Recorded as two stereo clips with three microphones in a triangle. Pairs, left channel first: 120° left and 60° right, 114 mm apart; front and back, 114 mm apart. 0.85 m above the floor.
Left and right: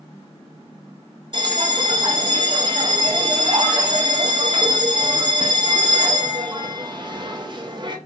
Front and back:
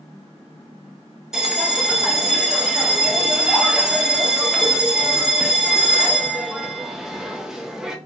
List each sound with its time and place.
1.3 s a bell: 95° right, 0.6 m